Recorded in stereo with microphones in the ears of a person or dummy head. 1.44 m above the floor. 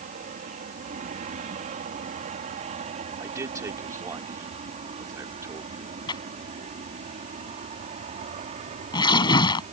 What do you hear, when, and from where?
0.0 s an aircraft: 40° right (ahead or behind); by 9.7 s 30° right (ahead or behind)
3.2 s a man speaking: 15° right (ahead or behind)
6.1 s tearing paper: 30° left (ahead or behind)